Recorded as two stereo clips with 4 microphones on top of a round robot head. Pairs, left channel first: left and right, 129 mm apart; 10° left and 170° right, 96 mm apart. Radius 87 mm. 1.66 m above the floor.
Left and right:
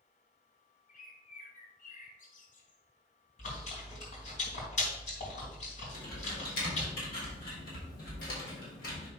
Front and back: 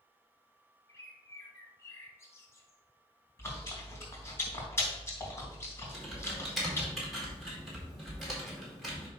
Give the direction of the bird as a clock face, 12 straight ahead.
10 o'clock.